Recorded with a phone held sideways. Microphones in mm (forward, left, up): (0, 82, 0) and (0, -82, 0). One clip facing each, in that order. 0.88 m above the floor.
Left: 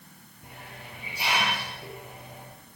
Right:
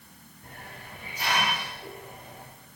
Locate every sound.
0.4 s a hiss: 10° left (ahead or behind), 9 m